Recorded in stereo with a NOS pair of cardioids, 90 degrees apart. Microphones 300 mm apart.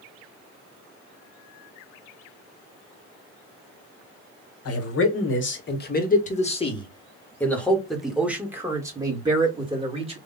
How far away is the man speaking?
About 1.9 m.